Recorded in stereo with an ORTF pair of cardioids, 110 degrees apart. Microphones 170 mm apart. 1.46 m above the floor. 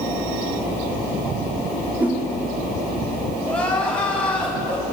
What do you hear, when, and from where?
2.0 s a whoosh: 10° right, 4.5 m
3.5 s crying: 10° left, 8 m